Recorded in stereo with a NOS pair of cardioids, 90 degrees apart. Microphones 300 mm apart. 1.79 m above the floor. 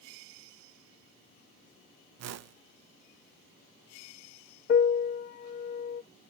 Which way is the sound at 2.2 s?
60° right.